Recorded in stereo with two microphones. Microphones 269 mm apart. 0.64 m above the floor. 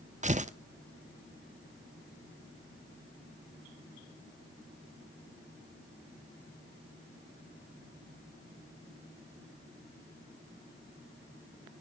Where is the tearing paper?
30° right (ahead or behind), 0.8 m.